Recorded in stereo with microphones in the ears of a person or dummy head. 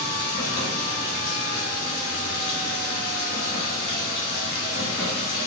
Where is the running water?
50° left (ahead or behind), 2 m.